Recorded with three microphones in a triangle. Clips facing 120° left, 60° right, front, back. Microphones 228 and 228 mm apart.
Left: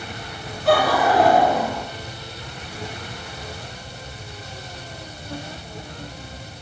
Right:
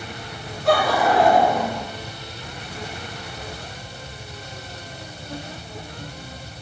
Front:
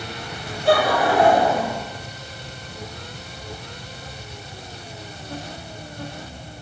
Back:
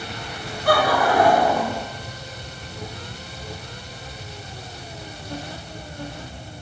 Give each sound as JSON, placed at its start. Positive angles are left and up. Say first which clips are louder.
{"t": 0.7, "sound": "laughter", "louder": "left 1 dB, front 1 dB", "azimuth_deg": 35, "distance_m": 1.3}